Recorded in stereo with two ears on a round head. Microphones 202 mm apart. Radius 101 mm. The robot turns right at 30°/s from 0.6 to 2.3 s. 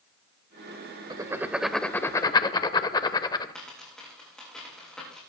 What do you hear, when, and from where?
1.1 s writing: 20° right (ahead or behind), 0.6 m; by 3.5 s 20° left (ahead or behind), 0.6 m
3.5 s a dropped coin: 5° left (ahead or behind), 7 m